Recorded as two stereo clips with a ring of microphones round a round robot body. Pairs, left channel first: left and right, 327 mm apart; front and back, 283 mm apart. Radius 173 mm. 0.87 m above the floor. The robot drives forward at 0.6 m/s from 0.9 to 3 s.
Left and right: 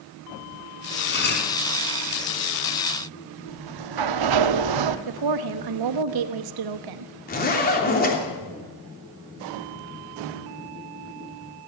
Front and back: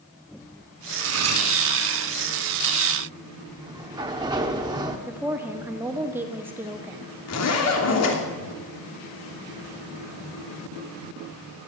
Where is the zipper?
25° left, 3 m.